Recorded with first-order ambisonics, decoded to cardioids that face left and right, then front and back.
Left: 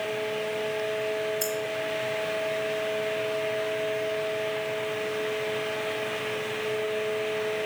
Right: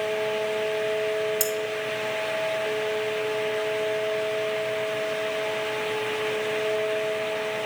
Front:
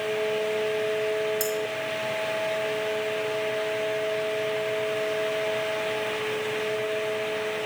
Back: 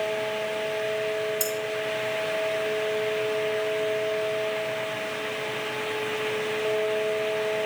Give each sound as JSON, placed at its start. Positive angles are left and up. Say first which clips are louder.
{"t": 1.4, "sound": "cutlery clinking", "louder": "right 3 dB, front 1 dB", "azimuth_deg": -85, "distance_m": 2.0}